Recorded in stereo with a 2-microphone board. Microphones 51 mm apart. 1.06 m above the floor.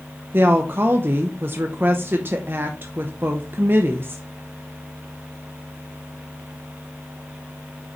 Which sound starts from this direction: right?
A woman speaking, at 0.3 s.